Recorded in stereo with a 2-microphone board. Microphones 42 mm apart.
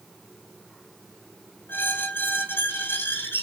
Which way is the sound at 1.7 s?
70° left (ahead or behind).